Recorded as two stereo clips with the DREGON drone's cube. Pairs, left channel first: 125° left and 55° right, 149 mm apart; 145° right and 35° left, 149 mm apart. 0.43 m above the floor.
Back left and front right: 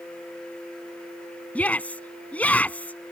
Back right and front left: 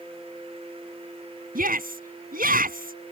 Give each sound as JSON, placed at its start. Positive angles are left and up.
{"t": 1.6, "sound": "a shout", "azimuth_deg": 45}